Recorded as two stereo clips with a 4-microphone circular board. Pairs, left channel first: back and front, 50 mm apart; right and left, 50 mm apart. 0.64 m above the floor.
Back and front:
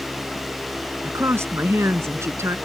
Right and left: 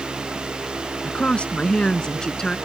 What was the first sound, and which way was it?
A woman speaking, 25° right.